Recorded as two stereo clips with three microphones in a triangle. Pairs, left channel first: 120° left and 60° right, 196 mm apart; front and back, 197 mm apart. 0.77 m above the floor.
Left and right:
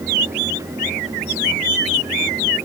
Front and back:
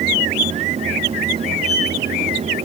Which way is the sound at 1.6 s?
130° right.